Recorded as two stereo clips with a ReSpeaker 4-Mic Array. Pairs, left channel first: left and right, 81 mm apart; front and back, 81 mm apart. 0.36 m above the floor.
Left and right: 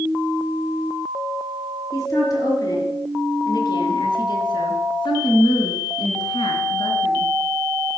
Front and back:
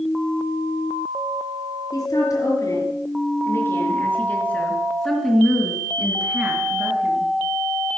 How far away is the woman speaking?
About 5.5 m.